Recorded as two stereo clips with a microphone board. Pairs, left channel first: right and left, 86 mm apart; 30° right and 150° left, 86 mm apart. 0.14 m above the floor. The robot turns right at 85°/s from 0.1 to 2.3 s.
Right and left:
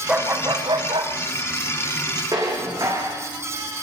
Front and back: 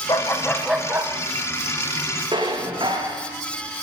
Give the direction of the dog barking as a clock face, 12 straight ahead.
12 o'clock.